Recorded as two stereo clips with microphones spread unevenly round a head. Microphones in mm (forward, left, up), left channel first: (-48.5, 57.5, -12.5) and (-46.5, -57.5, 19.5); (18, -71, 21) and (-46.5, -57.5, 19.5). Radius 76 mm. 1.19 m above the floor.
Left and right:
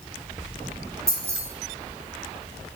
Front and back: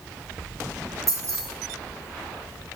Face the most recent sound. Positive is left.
turn(degrees=-150)